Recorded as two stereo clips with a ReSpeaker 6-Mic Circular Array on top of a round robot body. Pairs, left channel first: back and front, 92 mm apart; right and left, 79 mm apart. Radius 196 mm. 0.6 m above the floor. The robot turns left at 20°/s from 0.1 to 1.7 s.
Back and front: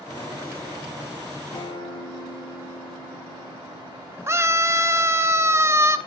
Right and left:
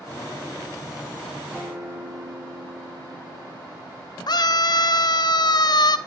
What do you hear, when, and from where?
1.5 s a guitar: 170° left, 8.5 m; by 5.1 s 165° left, 8.5 m
4.3 s a scream: 60° right, 1.7 m